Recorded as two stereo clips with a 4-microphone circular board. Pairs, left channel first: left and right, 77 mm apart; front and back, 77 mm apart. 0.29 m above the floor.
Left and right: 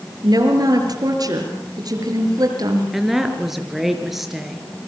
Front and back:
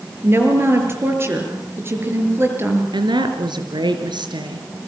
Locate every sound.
0.2 s a woman speaking: 125° right, 6 m
2.9 s a woman speaking: 175° right, 4 m